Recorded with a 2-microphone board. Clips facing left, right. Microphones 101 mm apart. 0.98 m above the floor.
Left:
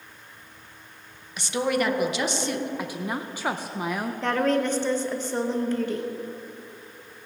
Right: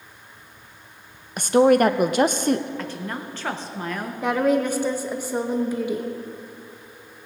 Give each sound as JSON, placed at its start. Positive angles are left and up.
{"t": 1.4, "sound": "a woman speaking", "side_deg": -50, "distance_m": 0.6}
{"t": 2.8, "sound": "a woman speaking", "side_deg": 10, "distance_m": 0.6}
{"t": 4.2, "sound": "a woman speaking", "side_deg": -10, "distance_m": 0.9}